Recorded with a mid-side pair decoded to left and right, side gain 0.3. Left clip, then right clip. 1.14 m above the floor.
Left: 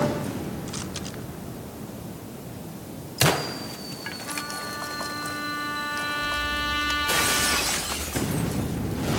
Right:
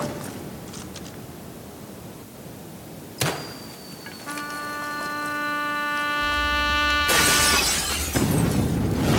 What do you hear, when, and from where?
4.3 s a trumpet: 55° right, 3.5 m